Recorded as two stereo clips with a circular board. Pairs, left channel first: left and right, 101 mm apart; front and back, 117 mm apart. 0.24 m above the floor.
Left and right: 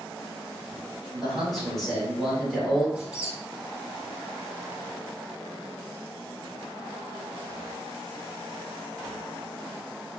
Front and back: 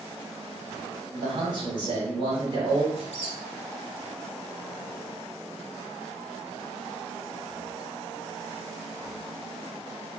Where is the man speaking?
175° left, 1.6 m.